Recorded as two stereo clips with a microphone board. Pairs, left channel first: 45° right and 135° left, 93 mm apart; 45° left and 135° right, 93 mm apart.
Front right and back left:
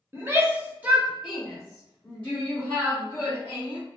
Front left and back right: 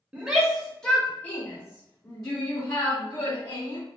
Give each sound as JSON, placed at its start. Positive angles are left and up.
{"t": 0.1, "sound": "a shout", "azimuth_deg": 155, "distance_m": 1.0}